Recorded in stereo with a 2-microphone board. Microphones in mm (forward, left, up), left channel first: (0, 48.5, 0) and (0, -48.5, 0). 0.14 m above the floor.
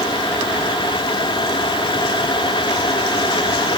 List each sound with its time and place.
Only background noise.